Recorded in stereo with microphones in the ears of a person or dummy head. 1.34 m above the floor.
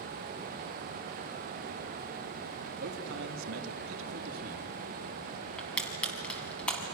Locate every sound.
2.8 s a man speaking: 55° right (ahead or behind), 2.5 m; by 4.6 s 45° right (ahead or behind), 1.9 m
5.6 s crushing: 5° left (ahead or behind), 4 m